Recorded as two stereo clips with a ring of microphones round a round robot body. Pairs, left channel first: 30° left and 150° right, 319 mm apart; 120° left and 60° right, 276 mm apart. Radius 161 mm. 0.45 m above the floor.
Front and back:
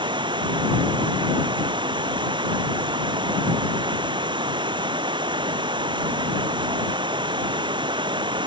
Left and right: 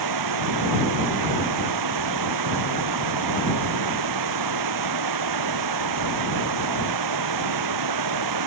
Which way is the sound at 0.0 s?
75° right.